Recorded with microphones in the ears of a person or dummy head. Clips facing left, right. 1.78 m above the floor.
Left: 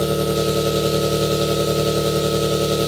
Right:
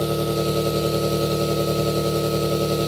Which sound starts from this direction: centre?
An engine running, at 0.0 s.